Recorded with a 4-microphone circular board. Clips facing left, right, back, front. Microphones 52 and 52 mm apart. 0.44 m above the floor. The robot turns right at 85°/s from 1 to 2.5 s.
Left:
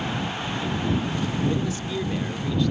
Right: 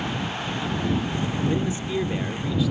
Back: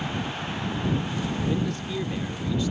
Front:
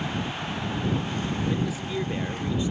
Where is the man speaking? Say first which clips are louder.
Right 1 dB, even; 100° right; by 2.7 s 10° right.